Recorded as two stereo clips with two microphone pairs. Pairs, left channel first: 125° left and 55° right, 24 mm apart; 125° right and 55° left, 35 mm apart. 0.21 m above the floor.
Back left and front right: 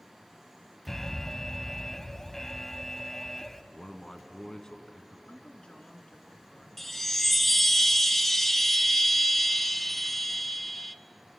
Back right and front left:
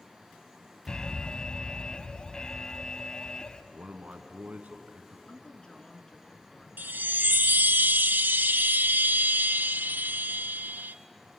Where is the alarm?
170° right, 0.7 m.